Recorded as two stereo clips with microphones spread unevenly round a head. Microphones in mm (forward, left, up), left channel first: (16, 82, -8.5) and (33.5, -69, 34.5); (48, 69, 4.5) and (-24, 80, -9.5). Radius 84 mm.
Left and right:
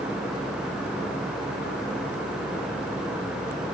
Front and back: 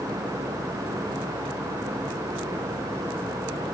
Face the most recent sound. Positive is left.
No sound to turn to.